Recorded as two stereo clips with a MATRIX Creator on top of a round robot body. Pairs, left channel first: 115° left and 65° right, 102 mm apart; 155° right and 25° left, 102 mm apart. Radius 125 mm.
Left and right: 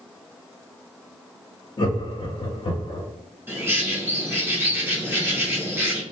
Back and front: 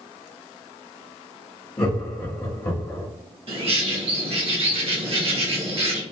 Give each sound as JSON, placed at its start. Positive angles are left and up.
{"t": 1.8, "sound": "laughter", "azimuth_deg": 140, "distance_m": 1.0}
{"t": 3.5, "sound": "a bird", "azimuth_deg": 0, "distance_m": 1.7}